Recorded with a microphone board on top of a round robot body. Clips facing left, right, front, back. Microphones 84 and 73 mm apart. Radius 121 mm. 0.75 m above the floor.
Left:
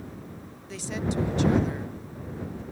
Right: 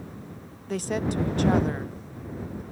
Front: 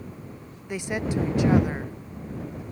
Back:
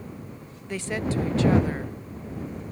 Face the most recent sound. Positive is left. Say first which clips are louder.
# right 4 dB, even
turn(degrees=-70)